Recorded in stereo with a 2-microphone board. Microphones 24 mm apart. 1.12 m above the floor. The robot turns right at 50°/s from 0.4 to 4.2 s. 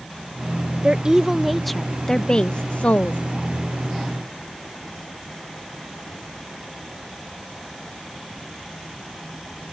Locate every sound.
0.8 s a woman speaking: 40° right; by 3.2 s 75° left